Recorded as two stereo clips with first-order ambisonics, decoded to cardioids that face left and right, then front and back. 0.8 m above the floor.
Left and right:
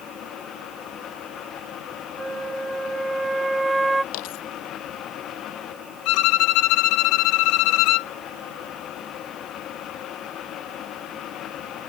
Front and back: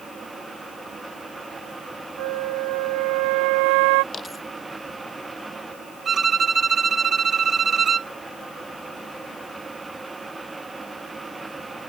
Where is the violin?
110° left.